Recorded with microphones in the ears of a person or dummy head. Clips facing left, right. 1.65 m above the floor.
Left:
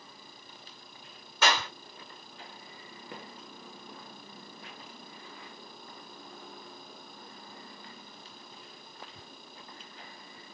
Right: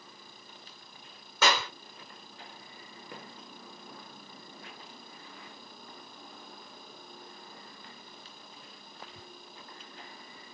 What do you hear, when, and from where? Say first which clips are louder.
1.4 s a clap: right 1 dB; 70° right (ahead or behind), 1.8 m